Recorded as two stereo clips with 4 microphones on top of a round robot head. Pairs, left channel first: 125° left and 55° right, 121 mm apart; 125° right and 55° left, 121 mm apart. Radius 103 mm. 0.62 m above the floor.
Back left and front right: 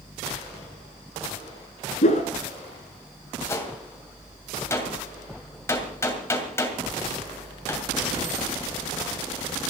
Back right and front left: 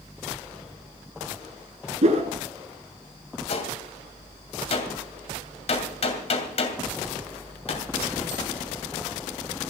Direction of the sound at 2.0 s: 90° left.